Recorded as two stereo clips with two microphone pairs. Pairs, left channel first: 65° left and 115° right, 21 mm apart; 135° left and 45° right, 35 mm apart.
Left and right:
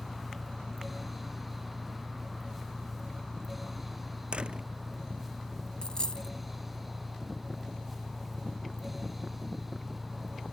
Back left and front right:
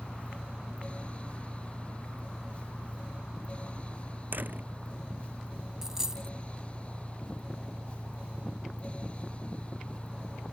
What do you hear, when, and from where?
0.0 s an engine running: 30° left
4.3 s a door slam: 75° right
5.8 s a dropped coin: 30° left